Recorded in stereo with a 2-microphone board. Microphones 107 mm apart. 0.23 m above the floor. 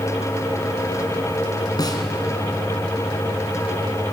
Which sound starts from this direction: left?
A snare drum, at 1.8 s.